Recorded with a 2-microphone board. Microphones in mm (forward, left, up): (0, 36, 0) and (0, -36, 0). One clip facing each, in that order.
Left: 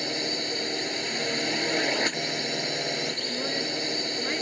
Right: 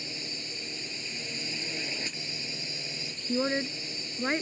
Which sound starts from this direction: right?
A woman speaking, at 3.3 s.